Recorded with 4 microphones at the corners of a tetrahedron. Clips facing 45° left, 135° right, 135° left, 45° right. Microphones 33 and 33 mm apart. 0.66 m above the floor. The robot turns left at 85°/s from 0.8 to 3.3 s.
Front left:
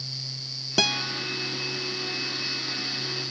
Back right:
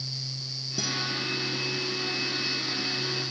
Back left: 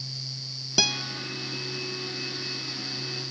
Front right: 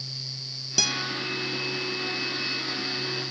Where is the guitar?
65° left, 0.7 m; by 1.0 s 45° left, 0.7 m.